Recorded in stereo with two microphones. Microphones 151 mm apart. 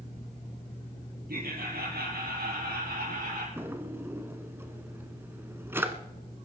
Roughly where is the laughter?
Right.